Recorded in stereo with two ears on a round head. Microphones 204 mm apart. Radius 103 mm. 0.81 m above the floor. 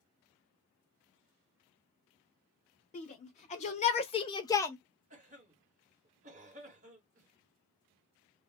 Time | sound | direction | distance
2.9 | a shout | 30° left (ahead or behind) | 0.9 m
5.1 | a cough | 30° right (ahead or behind) | 1.4 m